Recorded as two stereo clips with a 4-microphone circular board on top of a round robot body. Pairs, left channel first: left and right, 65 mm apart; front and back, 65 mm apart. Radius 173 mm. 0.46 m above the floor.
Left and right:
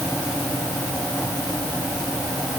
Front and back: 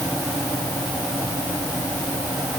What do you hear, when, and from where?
Only background noise.